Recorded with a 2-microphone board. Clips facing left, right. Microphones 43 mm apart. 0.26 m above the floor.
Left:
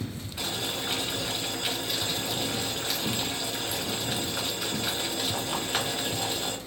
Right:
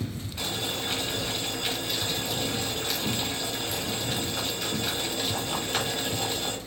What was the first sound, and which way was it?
Boiling, 5° left (ahead or behind).